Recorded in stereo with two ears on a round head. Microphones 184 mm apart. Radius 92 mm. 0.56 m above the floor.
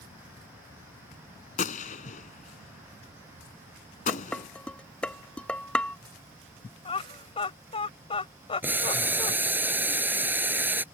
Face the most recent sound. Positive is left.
turn(degrees=-10)  # may be behind; listen again after turning